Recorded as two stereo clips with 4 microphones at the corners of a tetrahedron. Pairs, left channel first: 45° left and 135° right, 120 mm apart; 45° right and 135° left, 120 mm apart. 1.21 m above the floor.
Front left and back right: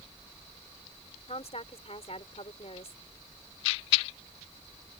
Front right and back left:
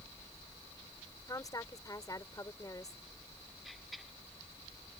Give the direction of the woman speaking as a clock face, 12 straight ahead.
12 o'clock.